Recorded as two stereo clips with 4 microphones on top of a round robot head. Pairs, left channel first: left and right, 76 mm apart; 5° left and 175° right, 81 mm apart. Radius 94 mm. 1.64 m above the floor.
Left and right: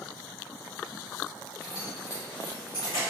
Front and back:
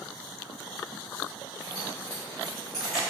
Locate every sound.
1.6 s keys jangling: straight ahead, 0.9 m; by 3.0 s 100° left, 0.9 m